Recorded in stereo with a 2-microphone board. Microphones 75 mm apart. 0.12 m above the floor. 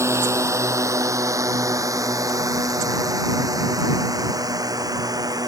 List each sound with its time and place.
0.0 s a drone: 40° right (ahead or behind); by 5.5 s 55° right (ahead or behind)